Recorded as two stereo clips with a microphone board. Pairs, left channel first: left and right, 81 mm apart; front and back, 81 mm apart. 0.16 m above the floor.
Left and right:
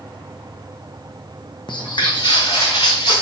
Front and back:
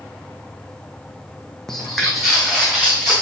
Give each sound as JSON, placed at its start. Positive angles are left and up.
{"t": 1.7, "sound": "footsteps", "azimuth_deg": 85, "distance_m": 0.5}